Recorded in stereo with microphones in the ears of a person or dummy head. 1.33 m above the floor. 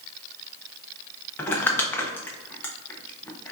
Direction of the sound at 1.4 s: 15° left (ahead or behind).